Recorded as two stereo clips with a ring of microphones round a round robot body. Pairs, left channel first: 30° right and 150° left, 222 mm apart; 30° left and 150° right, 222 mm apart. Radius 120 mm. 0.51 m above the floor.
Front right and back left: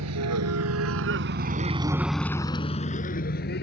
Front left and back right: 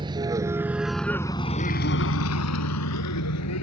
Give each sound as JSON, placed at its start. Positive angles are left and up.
{"t": 0.0, "sound": "a vehicle", "azimuth_deg": 140}